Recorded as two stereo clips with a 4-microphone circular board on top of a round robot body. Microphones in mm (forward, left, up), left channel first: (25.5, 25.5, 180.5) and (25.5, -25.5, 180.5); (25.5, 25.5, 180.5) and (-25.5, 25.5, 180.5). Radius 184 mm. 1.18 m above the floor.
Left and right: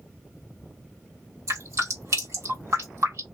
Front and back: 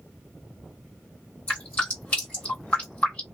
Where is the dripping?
65° right, 1.3 m.